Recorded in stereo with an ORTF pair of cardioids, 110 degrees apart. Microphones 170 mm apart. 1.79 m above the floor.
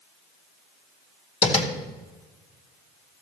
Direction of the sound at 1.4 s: 35° left.